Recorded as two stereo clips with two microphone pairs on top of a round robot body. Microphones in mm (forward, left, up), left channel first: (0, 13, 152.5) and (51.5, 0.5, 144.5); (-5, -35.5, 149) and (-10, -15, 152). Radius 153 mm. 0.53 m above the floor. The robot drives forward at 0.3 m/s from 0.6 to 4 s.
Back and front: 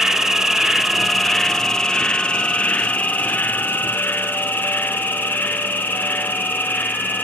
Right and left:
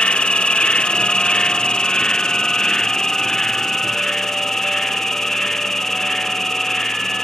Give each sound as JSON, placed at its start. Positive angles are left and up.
{"t": 0.0, "sound": "an insect", "azimuth_deg": -90, "distance_m": 1.0}